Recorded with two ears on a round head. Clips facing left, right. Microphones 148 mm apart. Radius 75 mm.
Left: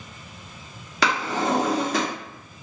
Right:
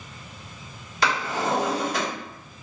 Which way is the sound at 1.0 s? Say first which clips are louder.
Left 2 dB; 60° left (ahead or behind).